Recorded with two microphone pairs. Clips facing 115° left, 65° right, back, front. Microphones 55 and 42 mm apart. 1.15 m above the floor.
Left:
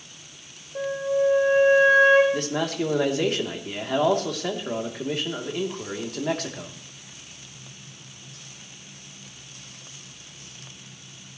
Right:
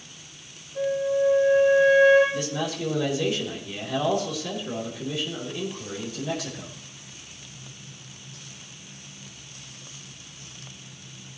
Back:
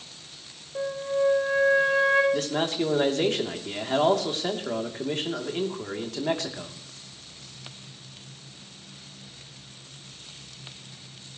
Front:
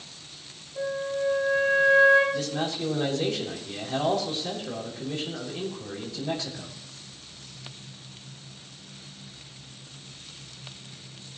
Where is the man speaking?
150° left, 2.5 m.